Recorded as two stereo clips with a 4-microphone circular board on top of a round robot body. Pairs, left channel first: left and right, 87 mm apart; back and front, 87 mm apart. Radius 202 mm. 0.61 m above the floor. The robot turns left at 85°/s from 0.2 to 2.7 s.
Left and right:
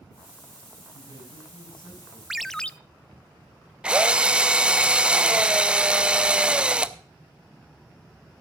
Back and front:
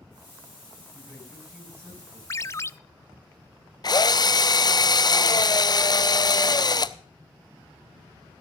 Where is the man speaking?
130° left, 7 m; by 2.2 s 25° left, 7 m.